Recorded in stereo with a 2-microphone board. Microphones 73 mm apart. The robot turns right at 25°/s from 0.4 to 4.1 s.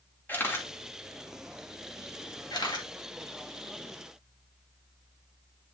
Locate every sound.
0.3 s a camera shutter: 30° left (ahead or behind), 2.5 m; by 2.9 s 75° left (ahead or behind), 2.5 m